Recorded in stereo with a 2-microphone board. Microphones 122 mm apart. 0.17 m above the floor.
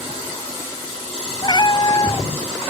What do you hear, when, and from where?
1.4 s a cat meowing: 35° left (ahead or behind)